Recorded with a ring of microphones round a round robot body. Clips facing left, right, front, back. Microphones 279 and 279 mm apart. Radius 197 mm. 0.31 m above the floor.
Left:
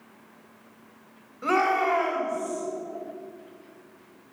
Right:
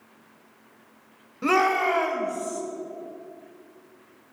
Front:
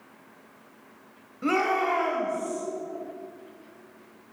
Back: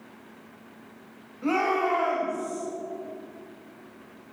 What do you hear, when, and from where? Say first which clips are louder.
1.4 s a shout: right 2 dB, even; 60° right, 1.3 m